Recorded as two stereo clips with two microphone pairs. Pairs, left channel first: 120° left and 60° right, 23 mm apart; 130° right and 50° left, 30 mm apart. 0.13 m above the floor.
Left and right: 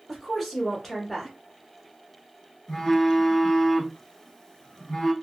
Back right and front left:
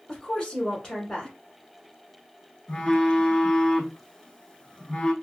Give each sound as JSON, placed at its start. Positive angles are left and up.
{"t": 0.1, "sound": "a woman speaking", "azimuth_deg": -170, "distance_m": 1.3}
{"t": 2.7, "sound": "a phone buzzing", "azimuth_deg": 175, "distance_m": 0.6}